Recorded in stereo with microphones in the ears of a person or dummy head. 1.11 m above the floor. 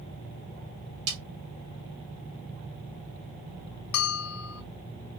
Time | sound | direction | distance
1.1 | a snare drum | 85° right | 2.5 m
3.9 | a bell | 80° left | 0.7 m